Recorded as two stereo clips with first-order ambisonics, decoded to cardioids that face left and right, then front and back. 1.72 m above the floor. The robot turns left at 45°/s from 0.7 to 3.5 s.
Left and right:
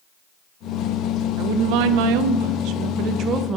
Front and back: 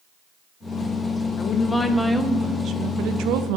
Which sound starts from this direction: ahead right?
A woman speaking, at 1.4 s.